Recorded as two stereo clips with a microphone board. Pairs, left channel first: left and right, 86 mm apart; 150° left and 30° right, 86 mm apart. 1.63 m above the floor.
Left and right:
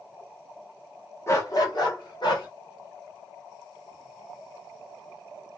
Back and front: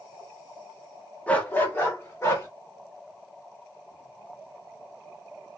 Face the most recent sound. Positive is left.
turn(degrees=100)